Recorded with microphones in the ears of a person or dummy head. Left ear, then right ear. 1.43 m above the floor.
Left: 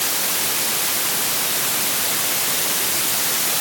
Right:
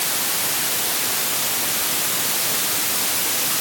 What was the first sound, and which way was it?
Only background noise.